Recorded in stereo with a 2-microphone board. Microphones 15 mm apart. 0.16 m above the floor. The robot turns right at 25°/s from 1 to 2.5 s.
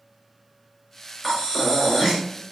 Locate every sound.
1.2 s breathing: 5° left (ahead or behind), 1.3 m; by 2.2 s 15° left (ahead or behind), 1.3 m